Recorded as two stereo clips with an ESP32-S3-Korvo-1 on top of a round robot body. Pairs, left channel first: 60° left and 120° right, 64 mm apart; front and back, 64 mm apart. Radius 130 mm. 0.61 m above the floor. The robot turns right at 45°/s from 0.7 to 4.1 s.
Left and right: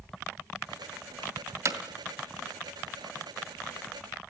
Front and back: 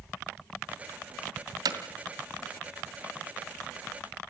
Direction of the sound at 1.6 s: 165° right.